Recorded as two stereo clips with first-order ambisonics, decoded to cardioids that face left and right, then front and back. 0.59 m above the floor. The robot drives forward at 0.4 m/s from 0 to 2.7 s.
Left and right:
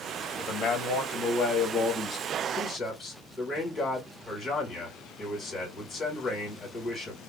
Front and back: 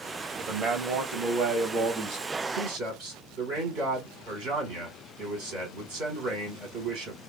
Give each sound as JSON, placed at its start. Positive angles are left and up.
{"t": 0.4, "sound": "a man speaking", "azimuth_deg": 145, "distance_m": 0.9}